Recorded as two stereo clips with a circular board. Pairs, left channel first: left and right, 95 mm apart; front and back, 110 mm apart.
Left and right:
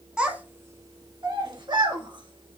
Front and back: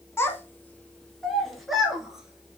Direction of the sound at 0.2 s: 25° right.